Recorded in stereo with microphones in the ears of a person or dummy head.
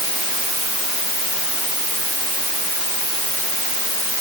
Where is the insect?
No insect in this recording.